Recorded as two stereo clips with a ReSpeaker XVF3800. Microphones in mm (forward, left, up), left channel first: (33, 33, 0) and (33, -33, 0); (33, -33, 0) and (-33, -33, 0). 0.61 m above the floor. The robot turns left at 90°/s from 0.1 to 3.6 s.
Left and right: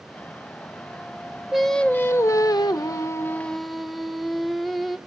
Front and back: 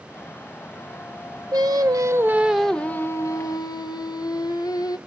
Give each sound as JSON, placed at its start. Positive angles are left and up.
{"t": 1.5, "sound": "singing", "azimuth_deg": -170, "distance_m": 0.9}